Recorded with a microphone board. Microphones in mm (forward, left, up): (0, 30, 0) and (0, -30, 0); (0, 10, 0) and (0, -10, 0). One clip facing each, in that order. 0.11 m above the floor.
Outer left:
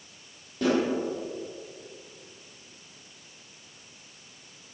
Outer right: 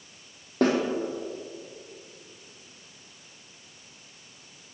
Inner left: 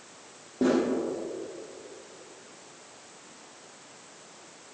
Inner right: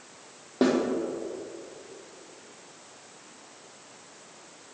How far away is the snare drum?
About 4.5 m.